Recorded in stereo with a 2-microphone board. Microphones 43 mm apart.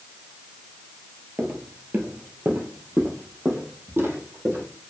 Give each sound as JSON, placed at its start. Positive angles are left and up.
{"t": 1.4, "sound": "footsteps", "side_deg": -45, "distance_m": 1.4}